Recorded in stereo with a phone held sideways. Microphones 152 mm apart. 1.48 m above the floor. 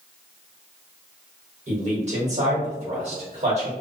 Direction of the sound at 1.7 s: 45° right (ahead or behind).